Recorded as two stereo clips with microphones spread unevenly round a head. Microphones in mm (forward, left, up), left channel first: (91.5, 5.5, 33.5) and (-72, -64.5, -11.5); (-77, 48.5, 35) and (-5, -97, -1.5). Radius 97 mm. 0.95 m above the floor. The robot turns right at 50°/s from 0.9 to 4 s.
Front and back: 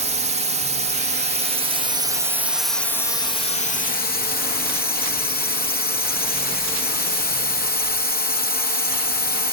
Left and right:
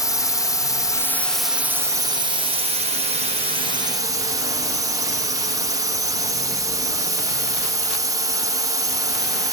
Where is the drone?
165° right; by 9.5 s 10° right.